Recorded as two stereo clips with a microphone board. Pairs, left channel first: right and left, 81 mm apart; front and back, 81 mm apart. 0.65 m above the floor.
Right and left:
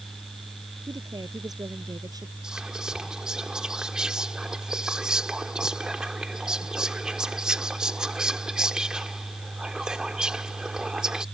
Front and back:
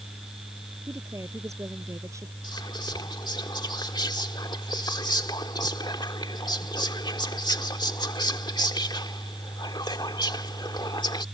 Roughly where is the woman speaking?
Behind left.